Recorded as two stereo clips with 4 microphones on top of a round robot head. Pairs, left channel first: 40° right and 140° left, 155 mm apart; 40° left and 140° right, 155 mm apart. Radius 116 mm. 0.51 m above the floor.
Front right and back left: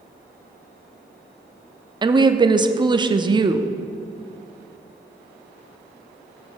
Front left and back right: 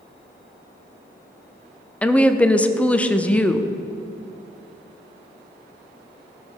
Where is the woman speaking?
115° left, 0.7 m.